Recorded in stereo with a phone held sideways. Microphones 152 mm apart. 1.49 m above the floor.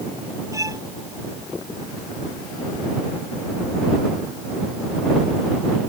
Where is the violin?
20° right (ahead or behind).